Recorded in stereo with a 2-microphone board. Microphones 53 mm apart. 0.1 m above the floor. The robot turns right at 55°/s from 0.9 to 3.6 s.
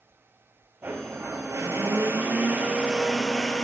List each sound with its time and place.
0.8 s a blender: 130° right, 1.3 m; by 3.6 s 20° left, 1.3 m